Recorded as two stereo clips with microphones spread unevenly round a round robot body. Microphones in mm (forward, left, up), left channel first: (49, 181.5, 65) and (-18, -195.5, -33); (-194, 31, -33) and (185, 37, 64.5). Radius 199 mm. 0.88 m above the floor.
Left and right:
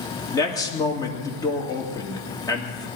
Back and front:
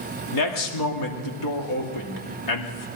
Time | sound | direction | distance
0.3 | a man speaking | 165° left | 2 m